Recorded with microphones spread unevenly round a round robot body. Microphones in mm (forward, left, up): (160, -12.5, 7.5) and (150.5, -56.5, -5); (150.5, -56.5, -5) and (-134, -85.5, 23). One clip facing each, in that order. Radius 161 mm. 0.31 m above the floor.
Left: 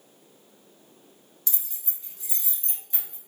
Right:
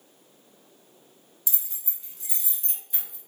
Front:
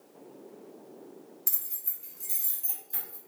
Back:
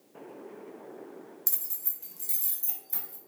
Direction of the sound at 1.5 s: 110° right.